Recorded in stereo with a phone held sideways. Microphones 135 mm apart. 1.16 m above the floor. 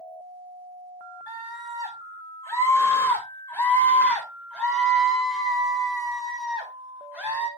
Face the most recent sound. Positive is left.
turn(degrees=-15)  # may be behind; listen again after turning